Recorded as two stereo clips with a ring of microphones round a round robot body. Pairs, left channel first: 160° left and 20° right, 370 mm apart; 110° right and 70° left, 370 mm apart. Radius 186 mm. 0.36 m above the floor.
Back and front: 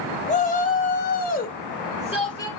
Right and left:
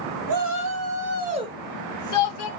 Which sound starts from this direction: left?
A shout, at 0.3 s.